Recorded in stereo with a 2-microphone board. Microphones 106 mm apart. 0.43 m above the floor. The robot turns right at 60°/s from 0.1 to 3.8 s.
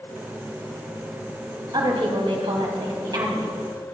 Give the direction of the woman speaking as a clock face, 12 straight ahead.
4 o'clock.